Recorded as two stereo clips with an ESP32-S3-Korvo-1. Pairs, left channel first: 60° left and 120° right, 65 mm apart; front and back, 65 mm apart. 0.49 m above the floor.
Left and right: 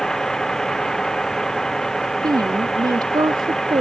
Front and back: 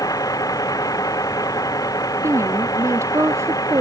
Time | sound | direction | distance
0.0 | a vehicle | 25° right | ?
2.2 | a woman speaking | 135° right | ?